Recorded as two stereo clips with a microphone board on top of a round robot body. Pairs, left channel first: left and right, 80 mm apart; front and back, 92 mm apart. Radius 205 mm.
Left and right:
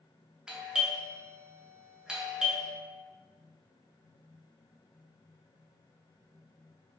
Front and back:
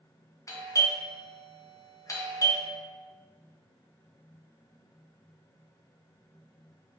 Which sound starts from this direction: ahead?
A doorbell, at 0.5 s.